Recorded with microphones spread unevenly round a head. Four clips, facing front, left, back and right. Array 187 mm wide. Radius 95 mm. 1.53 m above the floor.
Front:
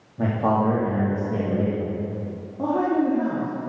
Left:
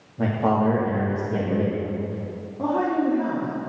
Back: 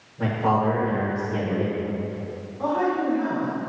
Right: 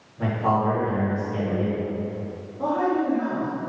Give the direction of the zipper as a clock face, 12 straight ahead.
No zipper in this recording.